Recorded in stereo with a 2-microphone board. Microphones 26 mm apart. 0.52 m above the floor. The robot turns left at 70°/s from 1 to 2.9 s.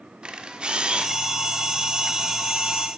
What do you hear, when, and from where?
0.2 s a camera shutter: 40° right (ahead or behind), 0.8 m